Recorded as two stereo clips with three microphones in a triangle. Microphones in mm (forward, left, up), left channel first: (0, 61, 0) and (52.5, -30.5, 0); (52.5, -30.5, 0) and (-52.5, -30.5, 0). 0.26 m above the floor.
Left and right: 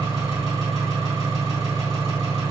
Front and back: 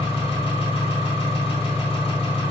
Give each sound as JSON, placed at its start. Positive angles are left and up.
{"t": 0.0, "sound": "an engine running", "azimuth_deg": -35, "distance_m": 2.0}